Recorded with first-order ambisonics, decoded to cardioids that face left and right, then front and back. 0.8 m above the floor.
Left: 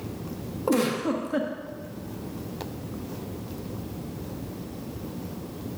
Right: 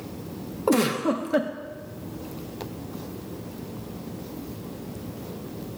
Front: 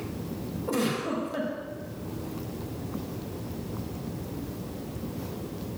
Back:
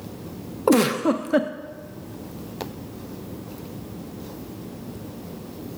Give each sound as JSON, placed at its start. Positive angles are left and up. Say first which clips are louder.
{"t": 0.7, "sound": "a giggle", "louder": "right 2 dB, back 10 dB", "azimuth_deg": -165, "distance_m": 0.6}